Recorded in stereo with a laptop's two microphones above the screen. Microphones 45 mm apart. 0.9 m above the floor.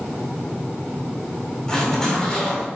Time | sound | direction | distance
1.7 | a zipper | 10° left (ahead or behind) | 3.5 m